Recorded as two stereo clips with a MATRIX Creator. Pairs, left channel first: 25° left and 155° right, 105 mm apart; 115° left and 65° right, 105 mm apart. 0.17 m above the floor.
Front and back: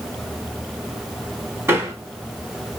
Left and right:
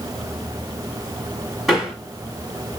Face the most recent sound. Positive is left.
turn(degrees=-155)